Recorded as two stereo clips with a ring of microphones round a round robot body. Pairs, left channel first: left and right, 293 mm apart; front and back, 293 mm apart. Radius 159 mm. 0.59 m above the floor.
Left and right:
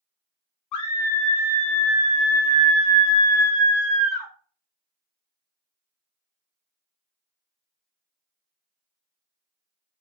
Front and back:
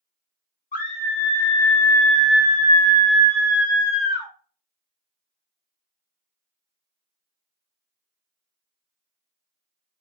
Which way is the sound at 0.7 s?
65° left.